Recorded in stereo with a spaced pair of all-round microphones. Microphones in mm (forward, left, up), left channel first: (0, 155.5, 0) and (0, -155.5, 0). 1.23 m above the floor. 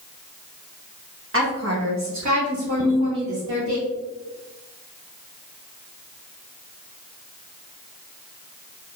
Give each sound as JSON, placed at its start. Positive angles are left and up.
{"t": 1.3, "sound": "a woman speaking", "side_deg": -40, "distance_m": 1.2}
{"t": 2.8, "sound": "a ringtone", "side_deg": -65, "distance_m": 1.8}